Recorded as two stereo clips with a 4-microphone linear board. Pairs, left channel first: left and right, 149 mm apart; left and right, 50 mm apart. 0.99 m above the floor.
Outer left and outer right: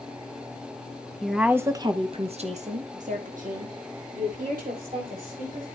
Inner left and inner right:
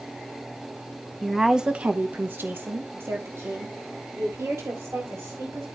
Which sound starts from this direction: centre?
A woman speaking, at 1.2 s.